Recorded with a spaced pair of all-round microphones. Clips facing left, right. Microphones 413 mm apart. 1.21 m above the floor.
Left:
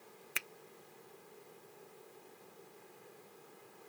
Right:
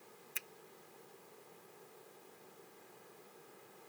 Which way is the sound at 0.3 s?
80° left.